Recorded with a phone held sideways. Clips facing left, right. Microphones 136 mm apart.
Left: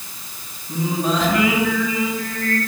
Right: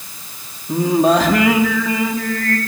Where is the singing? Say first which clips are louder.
Right 8 dB; 70° right (ahead or behind), 3.5 m.